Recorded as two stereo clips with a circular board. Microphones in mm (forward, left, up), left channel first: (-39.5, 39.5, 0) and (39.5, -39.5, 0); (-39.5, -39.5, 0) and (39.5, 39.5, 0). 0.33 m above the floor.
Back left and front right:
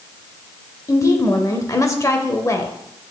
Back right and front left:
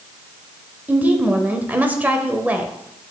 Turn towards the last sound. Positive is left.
turn(degrees=105)